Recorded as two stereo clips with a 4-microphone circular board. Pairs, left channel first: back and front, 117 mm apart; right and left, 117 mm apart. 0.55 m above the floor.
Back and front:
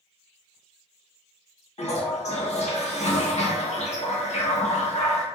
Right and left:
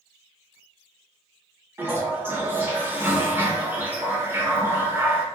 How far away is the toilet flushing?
About 0.6 m.